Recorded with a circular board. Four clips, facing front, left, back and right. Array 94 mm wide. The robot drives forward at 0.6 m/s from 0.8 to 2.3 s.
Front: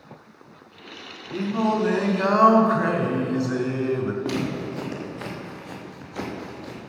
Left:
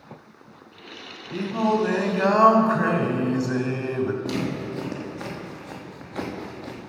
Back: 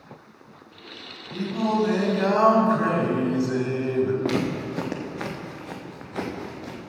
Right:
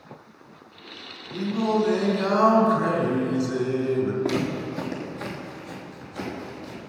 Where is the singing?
55° left, 1.7 m; by 4.1 s 85° left, 1.6 m.